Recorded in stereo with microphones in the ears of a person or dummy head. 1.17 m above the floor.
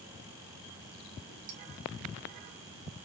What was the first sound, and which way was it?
Dishes clattering, 80° right.